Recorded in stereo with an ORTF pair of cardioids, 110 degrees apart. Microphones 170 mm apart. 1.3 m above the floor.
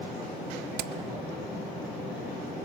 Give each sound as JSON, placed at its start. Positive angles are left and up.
{"t": 0.8, "sound": "hammering", "azimuth_deg": -70, "distance_m": 0.6}